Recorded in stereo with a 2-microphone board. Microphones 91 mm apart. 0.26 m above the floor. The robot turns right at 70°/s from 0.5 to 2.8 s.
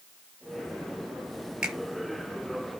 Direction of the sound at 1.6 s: 10° right (ahead or behind).